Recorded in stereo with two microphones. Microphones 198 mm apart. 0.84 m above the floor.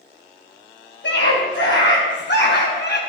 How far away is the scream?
About 6.5 m.